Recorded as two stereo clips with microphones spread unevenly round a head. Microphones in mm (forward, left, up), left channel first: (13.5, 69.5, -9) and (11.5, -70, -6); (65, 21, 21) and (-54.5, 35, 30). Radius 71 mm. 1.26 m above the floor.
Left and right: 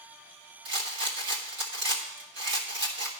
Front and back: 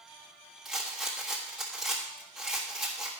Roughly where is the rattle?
Right.